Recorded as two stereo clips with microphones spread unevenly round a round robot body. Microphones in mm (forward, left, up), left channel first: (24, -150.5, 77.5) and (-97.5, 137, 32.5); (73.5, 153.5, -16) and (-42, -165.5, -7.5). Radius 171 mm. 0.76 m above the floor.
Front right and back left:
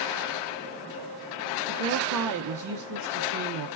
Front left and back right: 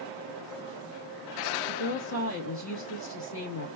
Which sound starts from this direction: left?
A woman speaking, at 1.7 s.